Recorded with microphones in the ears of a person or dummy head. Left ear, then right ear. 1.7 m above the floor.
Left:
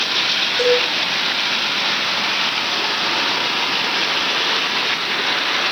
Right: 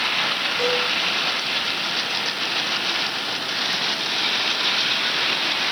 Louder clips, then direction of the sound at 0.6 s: Left 6 dB; 35° left (ahead or behind).